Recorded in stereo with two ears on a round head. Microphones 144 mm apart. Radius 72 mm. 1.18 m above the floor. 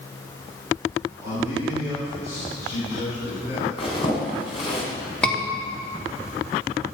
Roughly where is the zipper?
Left.